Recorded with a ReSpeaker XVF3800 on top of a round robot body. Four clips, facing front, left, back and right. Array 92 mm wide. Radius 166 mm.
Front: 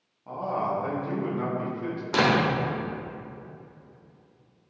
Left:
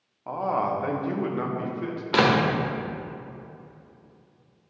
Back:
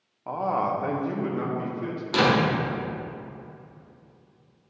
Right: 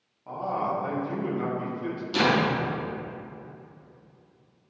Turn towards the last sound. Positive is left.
turn(degrees=70)